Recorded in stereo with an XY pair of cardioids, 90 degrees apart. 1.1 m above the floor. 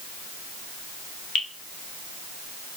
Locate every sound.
1.4 s dripping: 55° left, 1.3 m